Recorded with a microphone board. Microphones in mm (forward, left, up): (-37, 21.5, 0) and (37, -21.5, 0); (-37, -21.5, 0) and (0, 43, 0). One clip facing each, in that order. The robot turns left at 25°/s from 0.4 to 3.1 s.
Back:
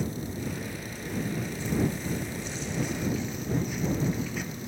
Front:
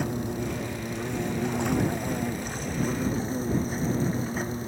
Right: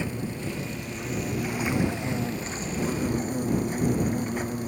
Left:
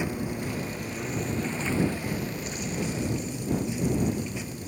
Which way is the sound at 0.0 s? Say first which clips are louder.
Front 4 dB, left 1 dB; 15° right.